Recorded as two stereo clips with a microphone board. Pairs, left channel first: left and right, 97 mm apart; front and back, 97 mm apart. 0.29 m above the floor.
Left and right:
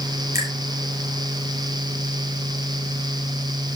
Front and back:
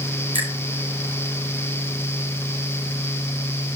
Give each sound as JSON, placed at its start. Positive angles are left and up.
{"t": 0.3, "sound": "a finger snap", "azimuth_deg": -30, "distance_m": 5.0}